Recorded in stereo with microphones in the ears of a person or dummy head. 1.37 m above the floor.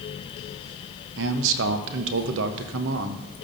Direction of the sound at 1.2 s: 75° right (ahead or behind).